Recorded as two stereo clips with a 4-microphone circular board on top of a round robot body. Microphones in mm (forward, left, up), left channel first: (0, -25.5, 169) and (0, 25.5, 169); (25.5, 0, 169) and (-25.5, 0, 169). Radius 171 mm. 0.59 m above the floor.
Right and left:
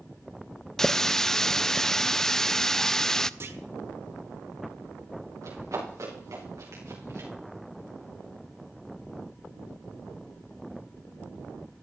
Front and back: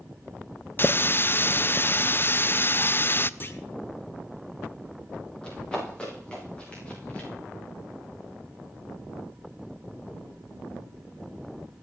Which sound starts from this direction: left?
Running footsteps, at 5.4 s.